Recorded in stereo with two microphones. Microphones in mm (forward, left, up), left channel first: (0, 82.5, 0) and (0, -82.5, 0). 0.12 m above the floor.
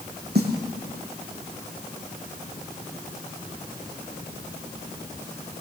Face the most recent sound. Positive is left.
turn(degrees=-80)